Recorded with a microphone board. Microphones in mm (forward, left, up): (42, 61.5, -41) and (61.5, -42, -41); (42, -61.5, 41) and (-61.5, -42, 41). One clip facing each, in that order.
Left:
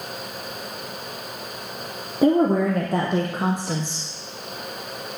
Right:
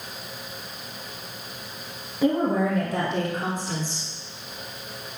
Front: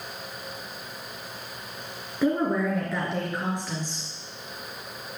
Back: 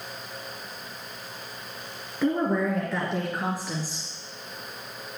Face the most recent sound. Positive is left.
turn(degrees=90)